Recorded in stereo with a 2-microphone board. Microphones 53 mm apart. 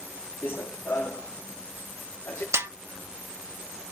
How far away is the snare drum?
About 0.5 m.